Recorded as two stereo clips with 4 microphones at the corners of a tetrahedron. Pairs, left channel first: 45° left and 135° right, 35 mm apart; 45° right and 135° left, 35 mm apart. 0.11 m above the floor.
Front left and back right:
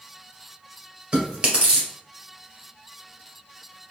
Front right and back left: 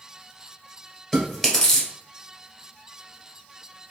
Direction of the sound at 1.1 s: 105° right.